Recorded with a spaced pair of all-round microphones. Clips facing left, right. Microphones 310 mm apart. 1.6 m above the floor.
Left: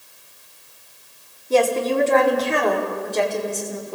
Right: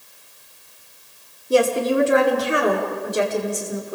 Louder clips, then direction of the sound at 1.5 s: Right 1 dB; 15° right (ahead or behind).